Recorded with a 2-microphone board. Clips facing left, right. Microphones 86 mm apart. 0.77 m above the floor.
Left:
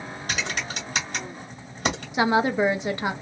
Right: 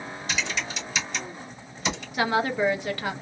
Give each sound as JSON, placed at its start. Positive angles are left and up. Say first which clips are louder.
{"t": 0.3, "sound": "typing on a keyboard", "louder": "left 1 dB", "side_deg": 55, "distance_m": 2.0}
{"t": 2.1, "sound": "a woman speaking", "louder": "left 3 dB", "side_deg": 20, "distance_m": 0.5}